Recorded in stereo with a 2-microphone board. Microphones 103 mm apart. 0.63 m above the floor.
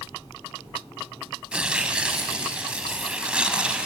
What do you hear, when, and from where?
1.5 s tearing paper: 10° right (ahead or behind), 0.7 m